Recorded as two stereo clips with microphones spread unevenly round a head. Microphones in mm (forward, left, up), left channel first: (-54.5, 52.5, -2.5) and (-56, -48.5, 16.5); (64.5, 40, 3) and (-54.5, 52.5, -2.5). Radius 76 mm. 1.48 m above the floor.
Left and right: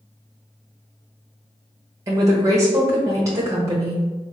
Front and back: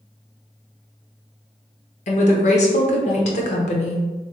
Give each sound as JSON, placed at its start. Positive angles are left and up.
{"t": 2.1, "sound": "a woman speaking", "azimuth_deg": -30, "distance_m": 0.7}